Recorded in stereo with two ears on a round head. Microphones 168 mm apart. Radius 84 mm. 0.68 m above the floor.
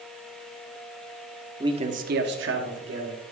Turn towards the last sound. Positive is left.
turn(degrees=-70)  # may be behind; listen again after turning